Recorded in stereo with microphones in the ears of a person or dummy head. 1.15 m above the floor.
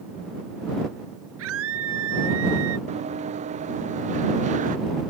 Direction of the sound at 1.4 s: 80° right.